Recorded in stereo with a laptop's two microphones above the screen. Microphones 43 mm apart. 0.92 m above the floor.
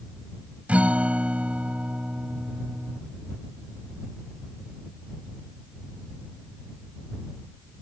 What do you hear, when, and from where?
0.7 s a guitar: 35° right (ahead or behind)